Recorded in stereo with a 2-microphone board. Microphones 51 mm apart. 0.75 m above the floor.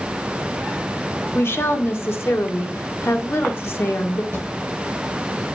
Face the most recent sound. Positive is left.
turn(degrees=-60)  # may be behind; listen again after turning